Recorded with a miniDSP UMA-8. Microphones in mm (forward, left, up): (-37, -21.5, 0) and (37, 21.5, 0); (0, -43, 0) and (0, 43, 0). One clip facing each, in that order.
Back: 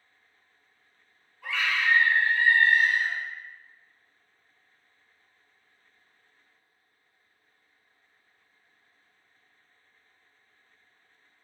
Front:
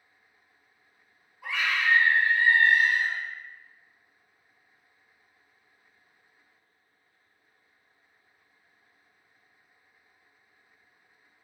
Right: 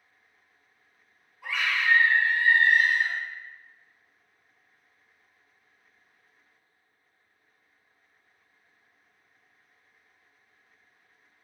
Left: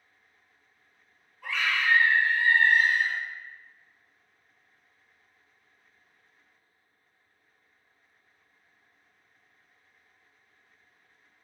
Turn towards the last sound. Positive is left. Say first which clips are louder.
# even, right 1 dB
turn(degrees=-25)